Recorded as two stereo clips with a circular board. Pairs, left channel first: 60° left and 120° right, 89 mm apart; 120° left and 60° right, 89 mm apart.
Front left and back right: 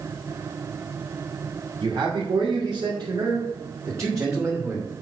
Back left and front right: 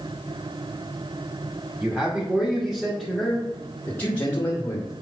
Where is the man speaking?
125° right, 2.5 m; by 4.9 s 170° left, 2.5 m.